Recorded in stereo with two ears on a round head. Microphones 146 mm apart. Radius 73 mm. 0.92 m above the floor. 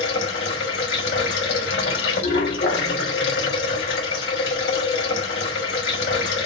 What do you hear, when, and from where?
0.0 s running water: 80° left, 3 m